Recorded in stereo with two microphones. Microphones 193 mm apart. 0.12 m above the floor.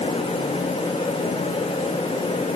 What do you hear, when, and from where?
Only background noise.